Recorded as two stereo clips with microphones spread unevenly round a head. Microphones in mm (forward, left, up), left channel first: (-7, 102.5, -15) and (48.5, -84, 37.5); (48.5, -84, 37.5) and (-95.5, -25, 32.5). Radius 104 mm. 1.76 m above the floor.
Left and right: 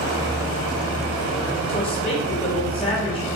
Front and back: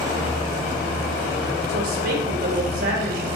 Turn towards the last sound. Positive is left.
turn(degrees=175)